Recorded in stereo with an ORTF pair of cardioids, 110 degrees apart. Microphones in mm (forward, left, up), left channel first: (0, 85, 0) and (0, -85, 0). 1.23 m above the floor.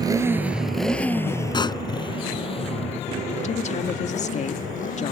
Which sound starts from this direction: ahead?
A motorcycle, at 0.0 s.